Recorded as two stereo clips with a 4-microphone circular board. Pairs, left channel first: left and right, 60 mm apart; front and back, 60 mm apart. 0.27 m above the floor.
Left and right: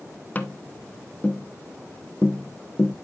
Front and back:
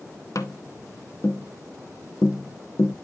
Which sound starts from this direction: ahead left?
Tapping, at 0.3 s.